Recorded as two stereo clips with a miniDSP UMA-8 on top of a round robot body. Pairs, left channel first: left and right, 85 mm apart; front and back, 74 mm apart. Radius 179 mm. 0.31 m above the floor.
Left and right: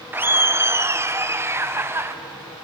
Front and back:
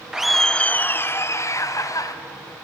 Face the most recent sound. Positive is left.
turn(degrees=-30)